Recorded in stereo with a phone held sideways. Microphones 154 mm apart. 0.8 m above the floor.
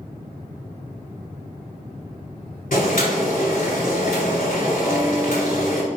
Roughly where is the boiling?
Left.